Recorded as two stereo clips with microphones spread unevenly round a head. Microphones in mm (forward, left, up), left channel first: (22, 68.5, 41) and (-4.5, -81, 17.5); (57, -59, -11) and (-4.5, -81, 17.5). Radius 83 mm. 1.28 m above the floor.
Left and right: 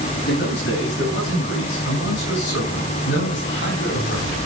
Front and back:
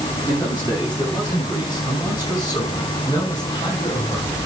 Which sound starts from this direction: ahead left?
A man speaking, at 0.3 s.